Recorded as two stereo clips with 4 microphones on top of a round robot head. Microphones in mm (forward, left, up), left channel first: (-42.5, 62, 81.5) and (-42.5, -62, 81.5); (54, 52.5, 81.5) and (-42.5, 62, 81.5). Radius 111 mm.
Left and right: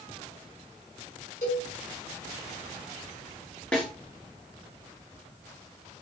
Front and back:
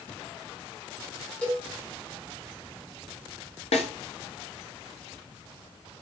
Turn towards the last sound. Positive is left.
turn(degrees=5)